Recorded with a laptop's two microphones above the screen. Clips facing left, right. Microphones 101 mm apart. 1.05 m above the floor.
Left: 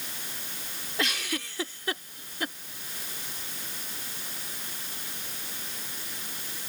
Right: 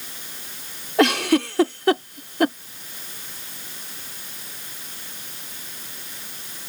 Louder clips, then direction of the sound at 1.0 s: Right 15 dB; 65° right (ahead or behind).